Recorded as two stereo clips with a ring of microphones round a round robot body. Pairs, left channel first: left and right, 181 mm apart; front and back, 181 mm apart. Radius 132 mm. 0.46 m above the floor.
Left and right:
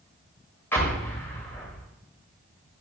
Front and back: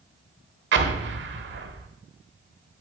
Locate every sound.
0.7 s an explosion: 170° left, 1.3 m